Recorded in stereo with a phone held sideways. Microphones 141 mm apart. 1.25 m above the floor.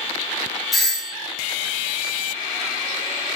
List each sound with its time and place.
0.7 s a doorbell: centre (ahead or behind), 0.7 m